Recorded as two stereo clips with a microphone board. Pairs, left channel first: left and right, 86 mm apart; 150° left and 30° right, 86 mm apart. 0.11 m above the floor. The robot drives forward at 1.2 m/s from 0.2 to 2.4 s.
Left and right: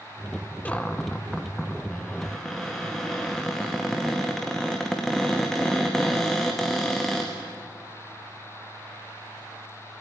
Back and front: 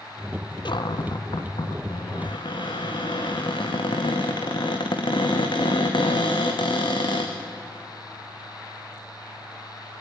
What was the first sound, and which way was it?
A cupboard door, 160° left.